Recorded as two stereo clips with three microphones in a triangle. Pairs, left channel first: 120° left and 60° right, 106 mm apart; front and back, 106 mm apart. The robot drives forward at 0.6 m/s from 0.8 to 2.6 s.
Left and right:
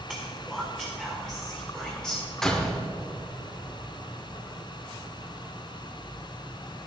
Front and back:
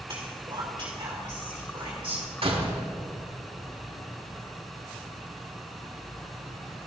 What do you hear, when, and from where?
0.1 s whispering: 140° right, 2.0 m; by 2.3 s 155° right, 2.5 m
2.4 s a door slam: 155° right, 1.2 m; by 2.8 s 160° right, 1.3 m